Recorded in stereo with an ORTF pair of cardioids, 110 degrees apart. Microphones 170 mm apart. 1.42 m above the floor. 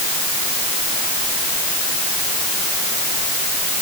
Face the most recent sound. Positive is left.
No sound to turn to.